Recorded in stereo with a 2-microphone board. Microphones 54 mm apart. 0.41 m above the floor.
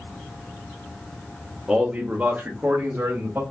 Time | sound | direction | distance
1.7 | a man speaking | 10° right (ahead or behind) | 0.8 m